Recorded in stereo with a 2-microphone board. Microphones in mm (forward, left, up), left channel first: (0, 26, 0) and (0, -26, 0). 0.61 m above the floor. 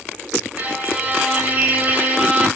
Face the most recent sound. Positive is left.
turn(degrees=-35)  # may be behind; listen again after turning